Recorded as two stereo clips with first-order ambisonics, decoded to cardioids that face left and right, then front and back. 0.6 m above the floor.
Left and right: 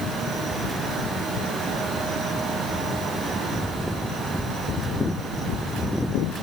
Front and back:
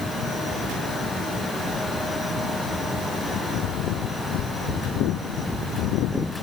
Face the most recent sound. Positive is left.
No sound to turn to.